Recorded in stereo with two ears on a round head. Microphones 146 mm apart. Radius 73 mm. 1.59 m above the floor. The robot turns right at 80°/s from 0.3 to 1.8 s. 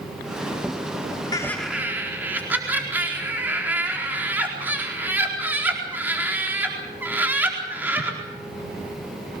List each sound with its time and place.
1.3 s laughter: 25° left (ahead or behind), 4.5 m; by 8.2 s 15° right (ahead or behind), 4.5 m